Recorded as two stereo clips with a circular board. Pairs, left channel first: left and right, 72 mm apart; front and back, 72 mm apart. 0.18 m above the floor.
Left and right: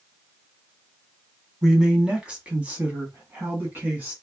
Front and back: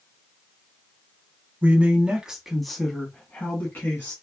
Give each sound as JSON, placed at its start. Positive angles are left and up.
{"t": 1.6, "sound": "a man speaking", "azimuth_deg": -160, "distance_m": 1.3}